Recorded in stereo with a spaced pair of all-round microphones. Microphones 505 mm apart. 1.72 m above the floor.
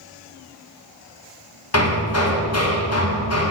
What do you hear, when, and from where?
1.7 s hammering: 30° left (ahead or behind), 0.9 m